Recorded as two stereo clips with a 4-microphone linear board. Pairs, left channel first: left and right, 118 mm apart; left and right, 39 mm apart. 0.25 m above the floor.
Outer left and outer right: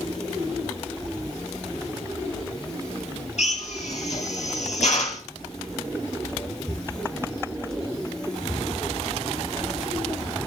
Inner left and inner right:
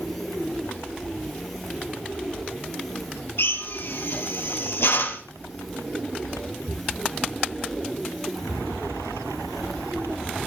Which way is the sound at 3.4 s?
75° left (ahead or behind).